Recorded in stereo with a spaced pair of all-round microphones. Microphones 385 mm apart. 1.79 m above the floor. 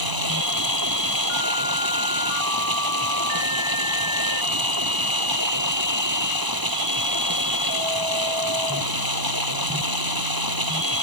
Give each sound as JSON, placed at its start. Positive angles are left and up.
{"t": 0.0, "sound": "running water", "side_deg": -65}